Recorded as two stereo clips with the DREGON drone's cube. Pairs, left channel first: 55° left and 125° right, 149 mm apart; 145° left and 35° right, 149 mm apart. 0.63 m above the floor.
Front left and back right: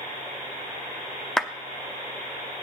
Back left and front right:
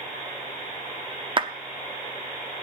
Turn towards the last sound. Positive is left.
turn(degrees=-30)